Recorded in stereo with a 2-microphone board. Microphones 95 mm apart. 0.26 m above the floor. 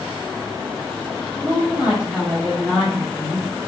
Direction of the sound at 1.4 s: 20° right (ahead or behind).